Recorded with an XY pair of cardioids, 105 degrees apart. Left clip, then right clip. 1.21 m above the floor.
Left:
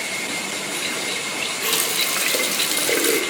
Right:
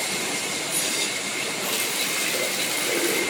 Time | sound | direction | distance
1.6 | a running tap | 50° left | 1.1 m